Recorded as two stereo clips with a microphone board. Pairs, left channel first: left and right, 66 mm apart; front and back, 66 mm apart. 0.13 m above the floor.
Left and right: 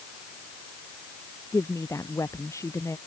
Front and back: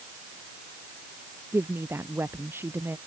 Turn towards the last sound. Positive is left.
turn(degrees=130)